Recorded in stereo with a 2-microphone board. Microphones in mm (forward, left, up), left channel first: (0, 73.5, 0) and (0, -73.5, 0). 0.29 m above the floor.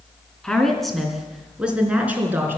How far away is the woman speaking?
About 3 m.